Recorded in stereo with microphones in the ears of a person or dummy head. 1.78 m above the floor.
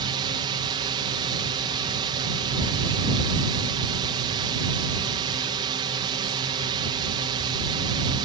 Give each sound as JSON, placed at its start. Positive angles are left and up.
{"t": 0.0, "sound": "a drone", "side_deg": -25}